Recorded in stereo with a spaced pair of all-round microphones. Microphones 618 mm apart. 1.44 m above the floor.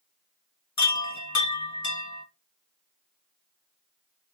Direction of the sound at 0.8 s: 25° left (ahead or behind).